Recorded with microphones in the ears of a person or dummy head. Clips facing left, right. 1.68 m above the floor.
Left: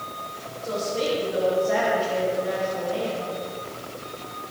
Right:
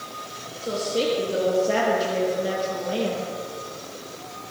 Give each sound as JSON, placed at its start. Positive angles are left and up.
{"t": 0.6, "sound": "a woman speaking", "side_deg": -35, "distance_m": 3.5}